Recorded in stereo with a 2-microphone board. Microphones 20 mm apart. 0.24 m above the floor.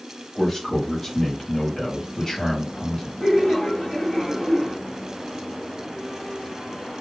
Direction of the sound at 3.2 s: 20° left (ahead or behind).